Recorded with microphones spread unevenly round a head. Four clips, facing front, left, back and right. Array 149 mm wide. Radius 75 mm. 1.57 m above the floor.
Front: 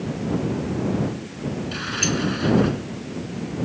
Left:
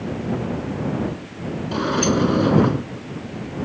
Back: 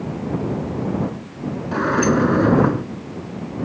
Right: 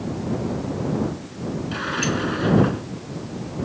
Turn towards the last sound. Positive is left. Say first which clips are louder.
# left 7 dB, back 13 dB
turn(degrees=155)